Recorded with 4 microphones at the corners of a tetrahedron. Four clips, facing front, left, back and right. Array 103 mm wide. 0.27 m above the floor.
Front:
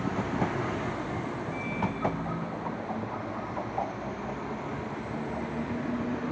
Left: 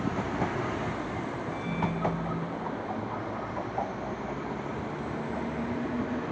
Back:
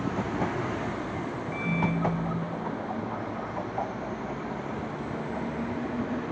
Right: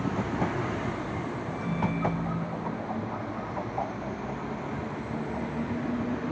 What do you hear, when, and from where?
1.5 s a microwave: 175° left, 10 m